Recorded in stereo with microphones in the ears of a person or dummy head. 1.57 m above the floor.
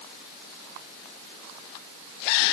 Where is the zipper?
I don't hear a zipper.